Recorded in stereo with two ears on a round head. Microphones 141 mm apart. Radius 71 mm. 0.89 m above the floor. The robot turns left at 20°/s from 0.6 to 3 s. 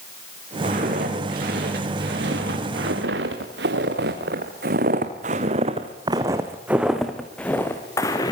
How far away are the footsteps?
About 9 m.